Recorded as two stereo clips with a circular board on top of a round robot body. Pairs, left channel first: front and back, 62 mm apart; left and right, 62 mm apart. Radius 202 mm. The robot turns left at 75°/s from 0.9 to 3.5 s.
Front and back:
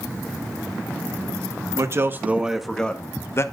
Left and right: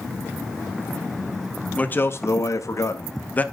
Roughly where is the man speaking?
Behind left.